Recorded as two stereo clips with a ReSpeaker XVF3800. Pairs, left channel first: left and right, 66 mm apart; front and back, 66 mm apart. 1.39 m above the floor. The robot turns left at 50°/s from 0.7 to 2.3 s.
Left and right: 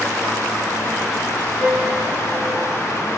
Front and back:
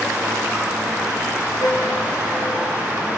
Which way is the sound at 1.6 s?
5° left.